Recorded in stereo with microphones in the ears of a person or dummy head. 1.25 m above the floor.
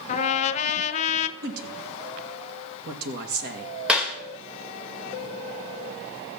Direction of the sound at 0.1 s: 45° left (ahead or behind).